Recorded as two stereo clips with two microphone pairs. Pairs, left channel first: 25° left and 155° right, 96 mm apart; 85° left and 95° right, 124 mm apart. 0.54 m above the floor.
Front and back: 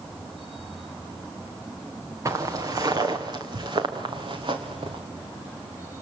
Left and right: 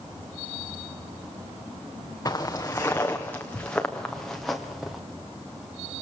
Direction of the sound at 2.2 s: 145° left.